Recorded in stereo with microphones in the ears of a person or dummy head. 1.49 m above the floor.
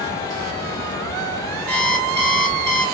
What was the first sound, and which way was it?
An alarm clock, 5° left (ahead or behind).